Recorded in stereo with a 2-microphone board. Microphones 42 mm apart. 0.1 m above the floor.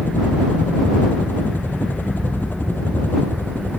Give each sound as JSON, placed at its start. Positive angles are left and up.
{"t": 0.0, "sound": "a helicopter", "side_deg": 55}